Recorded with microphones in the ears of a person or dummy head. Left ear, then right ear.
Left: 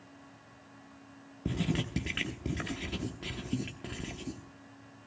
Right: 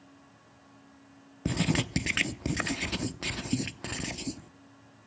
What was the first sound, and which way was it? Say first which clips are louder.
Writing: right 5 dB; 50° right (ahead or behind).